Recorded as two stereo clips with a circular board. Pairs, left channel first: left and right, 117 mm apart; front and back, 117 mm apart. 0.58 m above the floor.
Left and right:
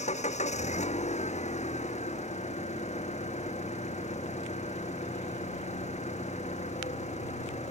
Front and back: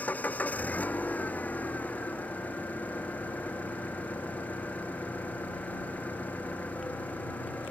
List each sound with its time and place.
0.0 s an engine running: 75° left